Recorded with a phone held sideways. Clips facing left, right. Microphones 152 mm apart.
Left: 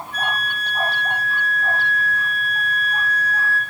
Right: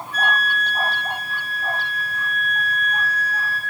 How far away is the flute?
About 3.5 m.